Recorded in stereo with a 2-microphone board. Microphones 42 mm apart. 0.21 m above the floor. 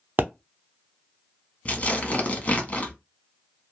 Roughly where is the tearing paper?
Left.